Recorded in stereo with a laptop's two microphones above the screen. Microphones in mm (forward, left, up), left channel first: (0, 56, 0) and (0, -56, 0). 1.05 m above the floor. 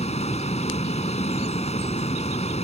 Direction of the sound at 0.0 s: 75° left (ahead or behind).